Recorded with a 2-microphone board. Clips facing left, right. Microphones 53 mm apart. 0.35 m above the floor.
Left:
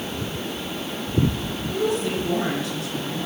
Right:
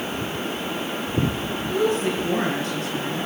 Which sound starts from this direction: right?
A woman speaking, at 1.7 s.